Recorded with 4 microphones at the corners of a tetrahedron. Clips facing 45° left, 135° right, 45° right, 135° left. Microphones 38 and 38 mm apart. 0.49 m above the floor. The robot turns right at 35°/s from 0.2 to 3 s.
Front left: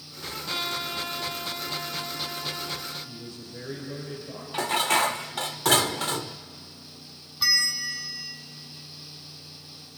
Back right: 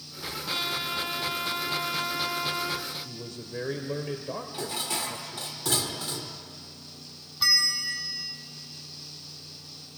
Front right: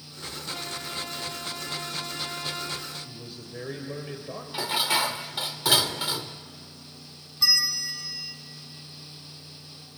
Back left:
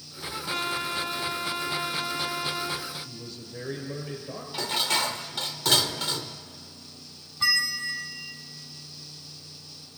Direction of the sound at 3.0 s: 125° right.